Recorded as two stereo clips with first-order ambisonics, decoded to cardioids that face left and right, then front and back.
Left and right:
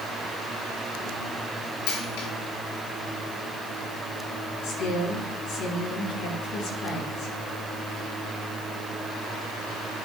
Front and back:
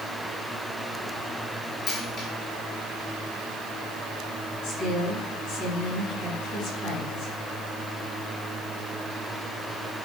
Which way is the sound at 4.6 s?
35° left.